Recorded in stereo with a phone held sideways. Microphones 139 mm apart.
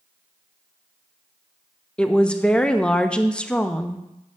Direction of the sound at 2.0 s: 5° left (ahead or behind).